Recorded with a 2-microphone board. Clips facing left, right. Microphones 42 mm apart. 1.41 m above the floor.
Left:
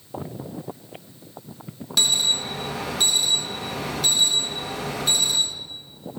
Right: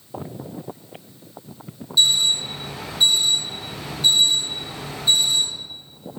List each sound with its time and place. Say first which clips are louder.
2.0 s an alarm: right 3 dB; 85° left, 1.7 m